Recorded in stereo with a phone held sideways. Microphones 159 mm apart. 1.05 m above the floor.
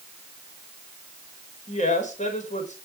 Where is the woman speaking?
50° left (ahead or behind), 5.5 m.